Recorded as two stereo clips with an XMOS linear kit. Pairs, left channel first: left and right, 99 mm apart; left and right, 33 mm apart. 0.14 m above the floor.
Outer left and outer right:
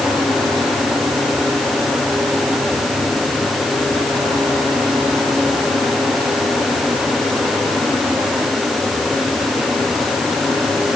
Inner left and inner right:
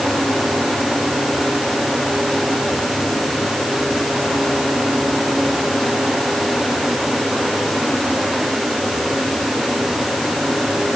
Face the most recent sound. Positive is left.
No sound to turn to.